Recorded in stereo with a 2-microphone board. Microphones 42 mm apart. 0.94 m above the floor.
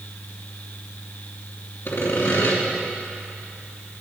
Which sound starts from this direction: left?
Sawing, at 1.9 s.